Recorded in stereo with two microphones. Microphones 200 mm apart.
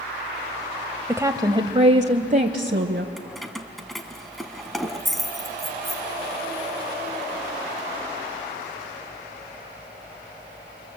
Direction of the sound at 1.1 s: 10° right (ahead or behind).